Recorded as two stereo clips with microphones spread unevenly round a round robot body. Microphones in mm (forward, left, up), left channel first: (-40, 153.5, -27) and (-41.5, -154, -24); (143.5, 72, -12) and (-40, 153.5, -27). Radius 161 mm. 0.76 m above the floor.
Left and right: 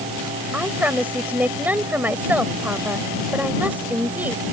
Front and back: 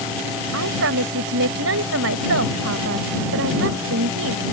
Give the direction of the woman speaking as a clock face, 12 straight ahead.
6 o'clock.